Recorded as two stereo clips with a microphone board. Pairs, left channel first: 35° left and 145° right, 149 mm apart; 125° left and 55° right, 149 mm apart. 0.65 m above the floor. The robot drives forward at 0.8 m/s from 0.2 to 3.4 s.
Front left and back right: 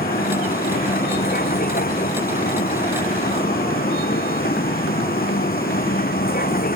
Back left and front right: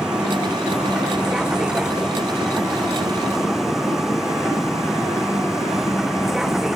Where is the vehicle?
30° left.